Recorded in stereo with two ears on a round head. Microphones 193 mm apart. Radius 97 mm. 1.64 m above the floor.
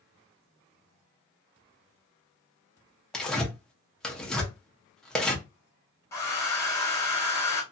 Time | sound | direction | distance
3.1 | tearing paper | 5° left (ahead or behind) | 0.8 m
6.1 | a hair dryer | 15° left (ahead or behind) | 1.3 m